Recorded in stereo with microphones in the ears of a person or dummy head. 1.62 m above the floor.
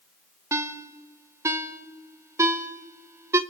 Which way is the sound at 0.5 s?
15° right (ahead or behind).